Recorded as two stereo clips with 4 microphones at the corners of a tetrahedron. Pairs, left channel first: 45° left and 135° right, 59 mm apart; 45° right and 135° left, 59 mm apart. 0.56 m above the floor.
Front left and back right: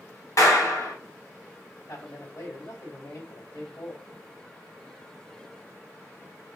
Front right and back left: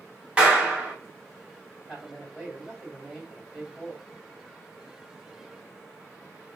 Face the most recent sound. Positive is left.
turn(degrees=40)